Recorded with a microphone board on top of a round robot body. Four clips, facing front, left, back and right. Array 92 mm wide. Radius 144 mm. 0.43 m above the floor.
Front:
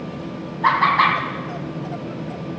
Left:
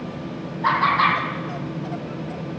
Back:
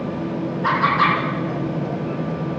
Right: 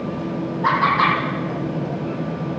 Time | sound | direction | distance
0.6 | laughter | 5° right | 5 m